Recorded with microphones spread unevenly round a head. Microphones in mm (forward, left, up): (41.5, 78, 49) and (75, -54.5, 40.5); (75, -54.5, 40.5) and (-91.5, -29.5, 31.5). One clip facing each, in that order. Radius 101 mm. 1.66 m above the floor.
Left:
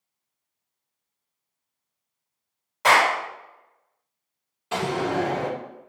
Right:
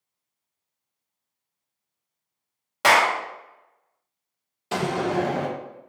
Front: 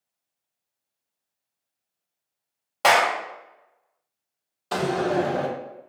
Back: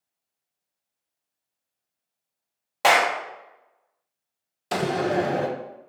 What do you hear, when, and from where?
2.8 s a clap: 100° right, 0.9 m
4.7 s a door slam: 125° right, 0.5 m